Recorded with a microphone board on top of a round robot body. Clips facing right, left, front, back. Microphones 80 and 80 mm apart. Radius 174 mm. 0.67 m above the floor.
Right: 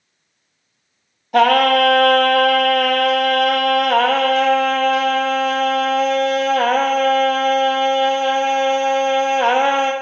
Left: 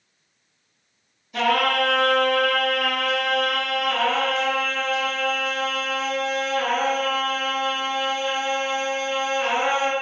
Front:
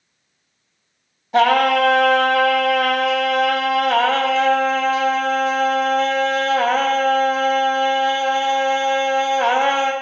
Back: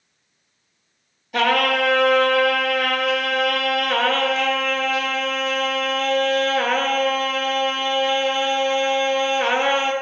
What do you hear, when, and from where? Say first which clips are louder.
1.3 s singing: right 8 dB, front 5 dB; 60° right, 0.7 m